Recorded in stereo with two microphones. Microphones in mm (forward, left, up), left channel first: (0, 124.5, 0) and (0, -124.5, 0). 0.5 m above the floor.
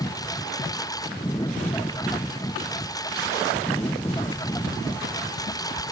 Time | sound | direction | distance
0.0 | a lawn mower | 15° left (ahead or behind) | ?